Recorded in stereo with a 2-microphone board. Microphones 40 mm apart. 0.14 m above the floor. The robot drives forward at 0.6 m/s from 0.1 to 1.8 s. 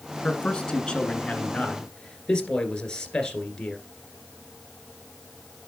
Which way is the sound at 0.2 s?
25° left (ahead or behind).